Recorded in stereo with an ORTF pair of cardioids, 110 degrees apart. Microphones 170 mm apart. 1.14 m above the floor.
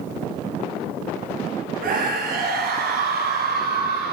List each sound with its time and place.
1.8 s a scream: 60° right, 8.5 m; by 4.1 s 65° right, 10 m